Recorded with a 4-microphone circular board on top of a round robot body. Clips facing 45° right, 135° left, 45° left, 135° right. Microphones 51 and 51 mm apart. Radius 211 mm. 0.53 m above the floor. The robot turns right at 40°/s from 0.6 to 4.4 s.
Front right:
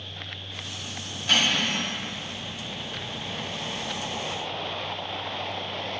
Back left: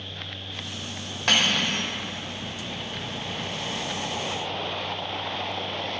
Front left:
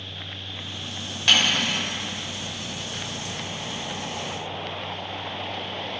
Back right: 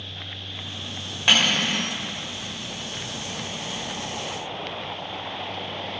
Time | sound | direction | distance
1.3 | cutlery clinking | 150° left | 1.6 m